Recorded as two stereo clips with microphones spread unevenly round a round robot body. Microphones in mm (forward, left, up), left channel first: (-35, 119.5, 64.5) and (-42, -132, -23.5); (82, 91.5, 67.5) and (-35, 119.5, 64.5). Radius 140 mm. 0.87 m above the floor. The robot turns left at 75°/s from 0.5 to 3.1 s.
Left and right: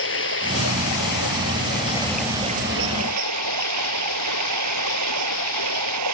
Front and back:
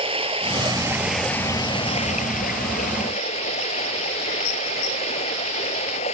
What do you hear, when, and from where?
0.0 s running water: 125° left; by 6.1 s 70° right